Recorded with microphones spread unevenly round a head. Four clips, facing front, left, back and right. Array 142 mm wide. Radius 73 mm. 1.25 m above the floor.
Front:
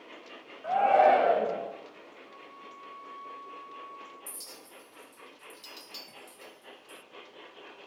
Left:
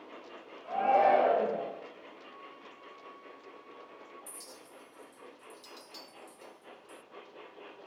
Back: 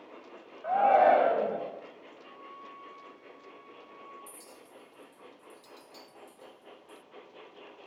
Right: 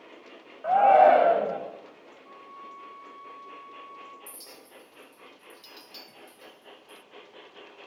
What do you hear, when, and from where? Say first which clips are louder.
0.6 s a shout: right 8 dB, even; 95° right, 7.5 m
2.2 s a flute: right 5 dB, back 3 dB; 95° right, 8 m
4.3 s a clink: right 1 dB, front 1 dB; 25° right, 0.7 m